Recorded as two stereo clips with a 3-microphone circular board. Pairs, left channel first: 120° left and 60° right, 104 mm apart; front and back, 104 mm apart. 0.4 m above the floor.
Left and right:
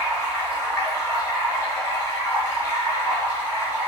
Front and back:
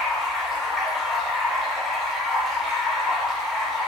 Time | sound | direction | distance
0.0 | running water | 95° left | 0.9 m